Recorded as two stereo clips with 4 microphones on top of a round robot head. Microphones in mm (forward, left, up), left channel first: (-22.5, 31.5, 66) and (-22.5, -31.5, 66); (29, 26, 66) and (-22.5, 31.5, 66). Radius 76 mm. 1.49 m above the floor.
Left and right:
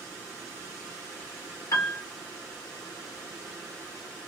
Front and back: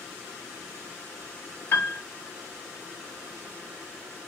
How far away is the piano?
About 0.8 m.